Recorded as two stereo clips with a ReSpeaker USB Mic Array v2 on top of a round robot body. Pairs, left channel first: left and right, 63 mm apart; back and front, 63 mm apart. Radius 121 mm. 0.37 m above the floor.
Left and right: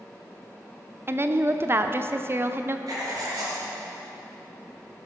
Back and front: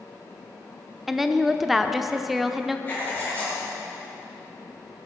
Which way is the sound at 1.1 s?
85° right.